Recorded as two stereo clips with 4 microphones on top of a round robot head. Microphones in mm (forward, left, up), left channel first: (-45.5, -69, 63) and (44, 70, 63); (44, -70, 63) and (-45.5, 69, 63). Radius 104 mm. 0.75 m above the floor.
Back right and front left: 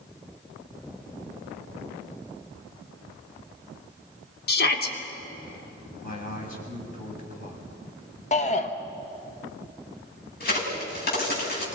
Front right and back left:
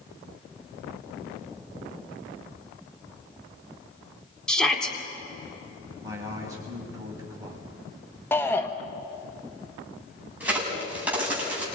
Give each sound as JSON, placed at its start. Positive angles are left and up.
{"t": 4.5, "sound": "a shout", "azimuth_deg": -145, "distance_m": 3.0}
{"t": 6.0, "sound": "a man speaking", "azimuth_deg": -165, "distance_m": 6.5}
{"t": 8.3, "sound": "a shout", "azimuth_deg": -130, "distance_m": 1.2}
{"t": 10.4, "sound": "a crack", "azimuth_deg": -155, "distance_m": 7.0}